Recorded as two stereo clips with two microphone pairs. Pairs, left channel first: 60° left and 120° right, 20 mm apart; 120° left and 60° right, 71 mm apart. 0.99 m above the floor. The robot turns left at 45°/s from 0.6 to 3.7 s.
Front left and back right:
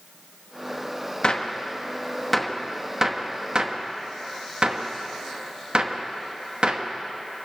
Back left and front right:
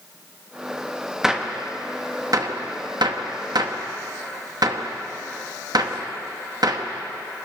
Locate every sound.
1.2 s a gunshot: 25° left, 0.8 m; by 7.5 s 85° right, 0.8 m